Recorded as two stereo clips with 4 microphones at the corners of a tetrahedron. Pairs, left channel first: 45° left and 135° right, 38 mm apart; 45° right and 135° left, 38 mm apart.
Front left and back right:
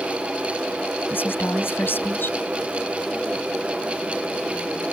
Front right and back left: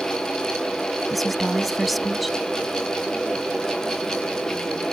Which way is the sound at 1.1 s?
45° left.